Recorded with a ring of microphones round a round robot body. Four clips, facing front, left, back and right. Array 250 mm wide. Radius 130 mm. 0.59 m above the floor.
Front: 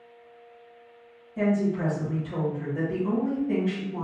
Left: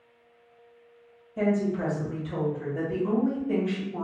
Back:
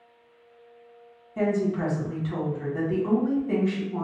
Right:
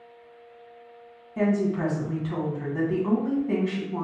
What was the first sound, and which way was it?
A woman speaking, 125° right.